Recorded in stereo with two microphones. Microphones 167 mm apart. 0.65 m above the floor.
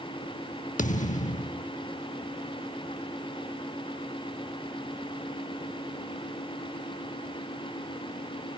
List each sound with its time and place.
0.8 s a thud: 50° left (ahead or behind)